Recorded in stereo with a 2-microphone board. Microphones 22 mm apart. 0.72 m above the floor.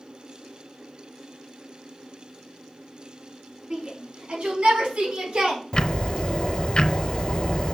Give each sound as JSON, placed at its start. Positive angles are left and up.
{"t": 3.7, "sound": "a shout", "side_deg": -80, "distance_m": 5.5}
{"t": 5.7, "sound": "ticking", "side_deg": 45, "distance_m": 0.6}